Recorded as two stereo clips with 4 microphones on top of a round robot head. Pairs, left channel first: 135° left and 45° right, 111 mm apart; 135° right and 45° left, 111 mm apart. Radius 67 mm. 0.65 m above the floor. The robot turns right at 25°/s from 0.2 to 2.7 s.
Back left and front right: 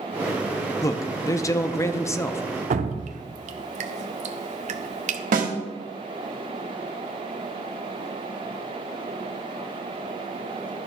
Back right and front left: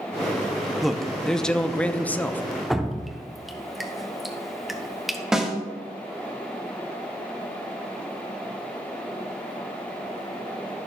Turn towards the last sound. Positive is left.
turn(degrees=-40)